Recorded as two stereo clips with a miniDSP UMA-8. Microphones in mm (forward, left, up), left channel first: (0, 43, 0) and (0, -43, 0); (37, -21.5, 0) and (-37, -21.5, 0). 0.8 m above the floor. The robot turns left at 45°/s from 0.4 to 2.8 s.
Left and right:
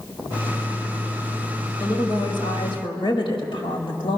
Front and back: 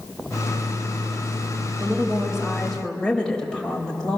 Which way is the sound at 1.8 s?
125° left.